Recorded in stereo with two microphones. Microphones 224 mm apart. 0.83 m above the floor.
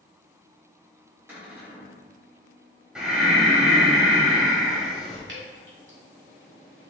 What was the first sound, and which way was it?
A cupboard door, 10° right (ahead or behind).